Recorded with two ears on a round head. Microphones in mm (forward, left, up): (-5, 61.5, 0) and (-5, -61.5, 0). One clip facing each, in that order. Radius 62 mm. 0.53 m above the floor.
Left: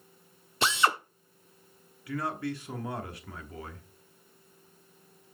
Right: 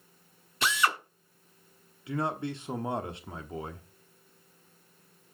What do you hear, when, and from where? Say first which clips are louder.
0.6 s a drill: left 2 dB; 25° left (ahead or behind), 0.8 m
2.1 s a man speaking: right 1 dB; 20° right (ahead or behind), 0.9 m